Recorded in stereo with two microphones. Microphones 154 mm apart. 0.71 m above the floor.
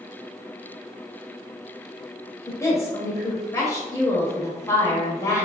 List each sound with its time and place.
2.5 s a woman speaking: 20° left (ahead or behind), 0.9 m